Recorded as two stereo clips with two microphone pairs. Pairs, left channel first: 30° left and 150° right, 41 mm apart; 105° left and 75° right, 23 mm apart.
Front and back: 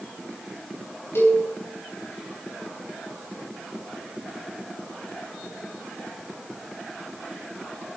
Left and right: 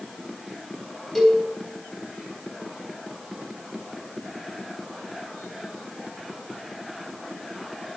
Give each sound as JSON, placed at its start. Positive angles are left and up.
{"t": 1.1, "sound": "a cowbell", "azimuth_deg": 30, "distance_m": 5.0}